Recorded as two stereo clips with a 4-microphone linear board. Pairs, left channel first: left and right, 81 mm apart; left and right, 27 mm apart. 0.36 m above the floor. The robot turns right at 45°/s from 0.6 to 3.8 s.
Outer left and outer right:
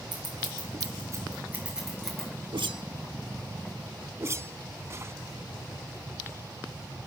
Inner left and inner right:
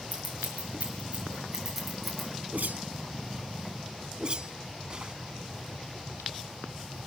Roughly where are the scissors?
Right.